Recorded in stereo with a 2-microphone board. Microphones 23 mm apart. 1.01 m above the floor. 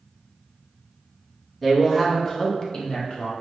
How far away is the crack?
I don't hear a crack.